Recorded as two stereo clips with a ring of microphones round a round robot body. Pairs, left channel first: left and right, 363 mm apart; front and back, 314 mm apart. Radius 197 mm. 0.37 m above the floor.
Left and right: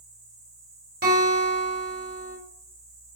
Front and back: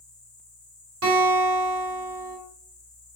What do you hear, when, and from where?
0.0 s an insect: 85° right, 2.5 m
1.0 s a guitar: 145° right, 1.7 m